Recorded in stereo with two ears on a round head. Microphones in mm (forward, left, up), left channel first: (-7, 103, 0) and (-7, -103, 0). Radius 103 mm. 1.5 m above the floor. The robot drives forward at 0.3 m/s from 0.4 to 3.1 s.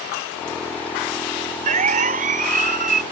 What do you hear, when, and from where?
1.7 s a siren: 35° right (ahead or behind); by 3.0 s 40° right (ahead or behind)